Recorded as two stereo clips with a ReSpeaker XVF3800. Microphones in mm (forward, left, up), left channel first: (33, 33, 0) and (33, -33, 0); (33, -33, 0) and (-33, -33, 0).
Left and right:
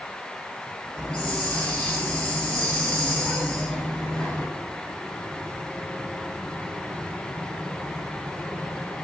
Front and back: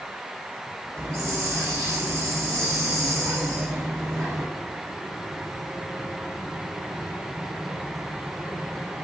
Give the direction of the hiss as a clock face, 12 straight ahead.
7 o'clock.